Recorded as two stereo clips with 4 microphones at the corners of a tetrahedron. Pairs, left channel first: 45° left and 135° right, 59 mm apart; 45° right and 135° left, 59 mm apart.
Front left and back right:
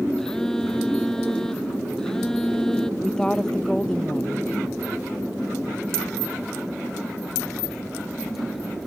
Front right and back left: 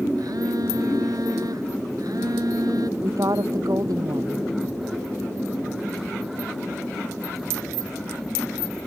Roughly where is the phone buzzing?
Behind left.